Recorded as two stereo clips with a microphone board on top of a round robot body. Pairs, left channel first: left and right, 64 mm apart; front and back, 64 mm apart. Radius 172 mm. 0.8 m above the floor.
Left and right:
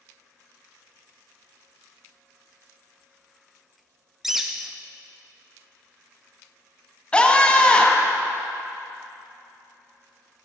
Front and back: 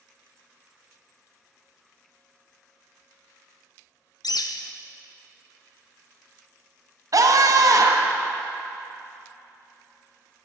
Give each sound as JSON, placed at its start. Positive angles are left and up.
{"t": 4.2, "sound": "a bird", "azimuth_deg": -5, "distance_m": 0.6}
{"t": 7.1, "sound": "a scream", "azimuth_deg": 160, "distance_m": 1.7}